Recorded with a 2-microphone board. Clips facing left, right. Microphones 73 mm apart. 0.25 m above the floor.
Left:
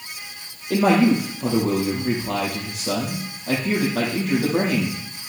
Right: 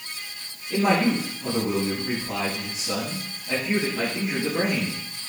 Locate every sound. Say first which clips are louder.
0.7 s a man speaking: left 5 dB; 75° left (ahead or behind), 6 m